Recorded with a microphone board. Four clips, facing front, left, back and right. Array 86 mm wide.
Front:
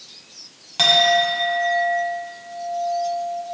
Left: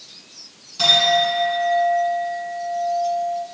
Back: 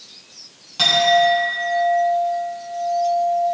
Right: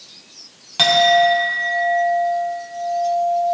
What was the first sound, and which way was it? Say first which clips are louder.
A clink: right 5 dB, back 2 dB; 70° right.